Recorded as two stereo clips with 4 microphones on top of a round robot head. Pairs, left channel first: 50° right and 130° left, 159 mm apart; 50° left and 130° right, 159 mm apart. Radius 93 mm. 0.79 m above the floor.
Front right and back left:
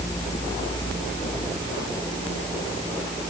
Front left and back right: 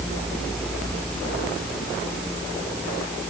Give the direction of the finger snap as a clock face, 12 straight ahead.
No finger snap in this recording.